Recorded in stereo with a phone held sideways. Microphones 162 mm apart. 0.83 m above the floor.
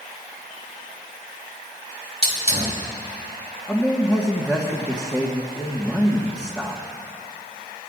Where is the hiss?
40° right (ahead or behind), 3.5 m.